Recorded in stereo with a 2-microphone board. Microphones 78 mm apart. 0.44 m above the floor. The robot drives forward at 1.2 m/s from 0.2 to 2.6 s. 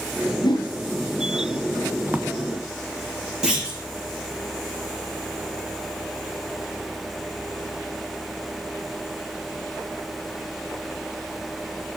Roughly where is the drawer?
Right.